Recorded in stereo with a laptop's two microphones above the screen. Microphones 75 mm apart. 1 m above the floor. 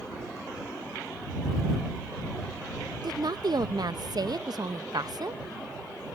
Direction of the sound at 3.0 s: 60° right (ahead or behind).